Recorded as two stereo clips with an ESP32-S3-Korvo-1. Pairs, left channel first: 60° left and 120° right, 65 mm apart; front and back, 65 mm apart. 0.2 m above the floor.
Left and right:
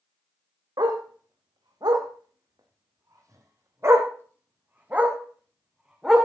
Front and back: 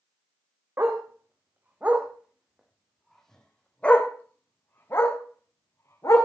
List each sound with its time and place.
0.8 s a dog barking: 130° right, 3.5 m; by 6.3 s 40° right, 4 m